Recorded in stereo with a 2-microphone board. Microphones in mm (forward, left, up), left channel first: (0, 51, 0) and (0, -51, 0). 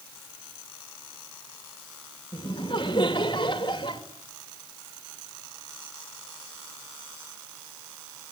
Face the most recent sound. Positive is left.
turn(degrees=50)  # may be behind; listen again after turning